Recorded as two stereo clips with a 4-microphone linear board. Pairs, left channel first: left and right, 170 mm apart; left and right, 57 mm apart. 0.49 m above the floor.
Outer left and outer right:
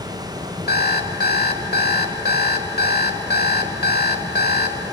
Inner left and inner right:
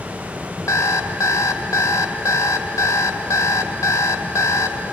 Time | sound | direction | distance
0.7 | an alarm clock | 65° left (ahead or behind) | 1.2 m